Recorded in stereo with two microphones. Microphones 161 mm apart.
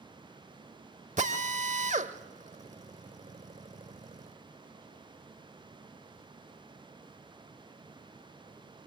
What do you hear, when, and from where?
1.2 s a drill: 50° right (ahead or behind), 1.0 m